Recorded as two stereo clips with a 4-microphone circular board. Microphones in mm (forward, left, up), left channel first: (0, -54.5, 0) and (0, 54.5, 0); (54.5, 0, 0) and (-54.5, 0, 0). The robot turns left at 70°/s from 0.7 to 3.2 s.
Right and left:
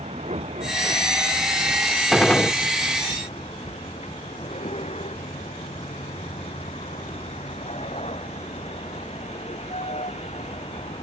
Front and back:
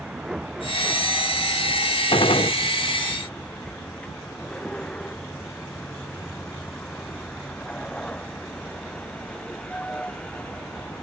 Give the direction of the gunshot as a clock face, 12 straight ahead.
12 o'clock.